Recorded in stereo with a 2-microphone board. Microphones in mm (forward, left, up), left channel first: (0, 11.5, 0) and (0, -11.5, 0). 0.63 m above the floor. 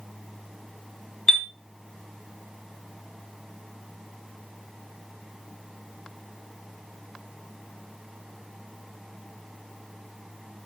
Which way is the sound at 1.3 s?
15° left (ahead or behind).